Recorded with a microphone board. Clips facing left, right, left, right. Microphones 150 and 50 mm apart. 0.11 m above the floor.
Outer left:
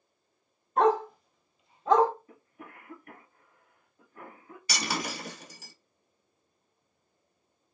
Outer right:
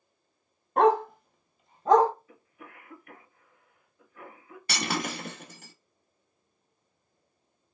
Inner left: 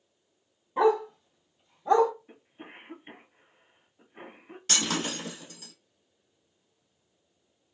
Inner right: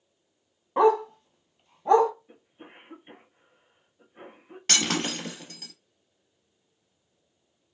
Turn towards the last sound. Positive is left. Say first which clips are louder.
# outer right 2 dB, inner right 3 dB
turn(degrees=-55)  # may be behind; listen again after turning